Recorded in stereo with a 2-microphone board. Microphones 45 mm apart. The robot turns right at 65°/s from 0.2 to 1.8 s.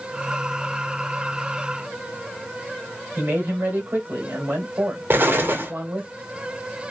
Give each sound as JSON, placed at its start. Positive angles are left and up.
{"t": 3.2, "sound": "a man speaking", "side_deg": -60, "distance_m": 1.9}
{"t": 5.1, "sound": "an explosion", "side_deg": -55, "distance_m": 0.9}